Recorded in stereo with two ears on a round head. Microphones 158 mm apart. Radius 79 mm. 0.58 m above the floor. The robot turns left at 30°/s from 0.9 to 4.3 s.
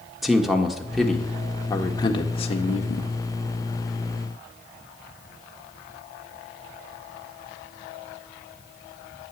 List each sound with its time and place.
0.2 s a man speaking: straight behind, 1.5 m; by 3.1 s 115° left, 1.5 m